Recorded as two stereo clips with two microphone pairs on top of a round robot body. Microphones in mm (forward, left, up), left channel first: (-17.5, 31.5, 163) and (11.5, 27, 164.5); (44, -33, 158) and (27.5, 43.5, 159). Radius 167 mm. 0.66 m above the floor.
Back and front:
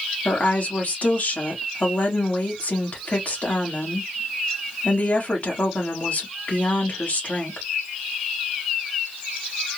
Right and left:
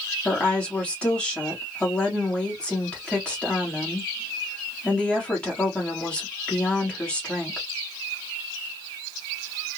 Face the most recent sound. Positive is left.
turn(degrees=-155)